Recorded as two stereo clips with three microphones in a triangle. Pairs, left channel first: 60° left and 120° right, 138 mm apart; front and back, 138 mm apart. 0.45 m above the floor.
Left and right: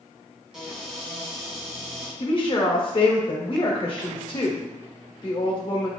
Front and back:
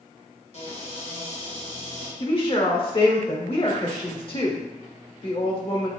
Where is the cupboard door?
35° right, 1.8 m.